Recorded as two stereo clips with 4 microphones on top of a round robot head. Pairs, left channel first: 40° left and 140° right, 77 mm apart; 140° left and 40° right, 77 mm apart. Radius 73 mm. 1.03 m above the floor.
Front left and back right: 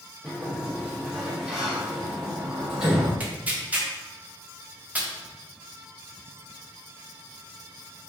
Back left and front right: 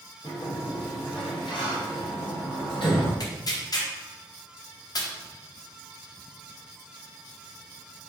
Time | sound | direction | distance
0.2 | a sliding door | 135° left | 1.4 m
3.2 | tearing paper | 155° left | 1.1 m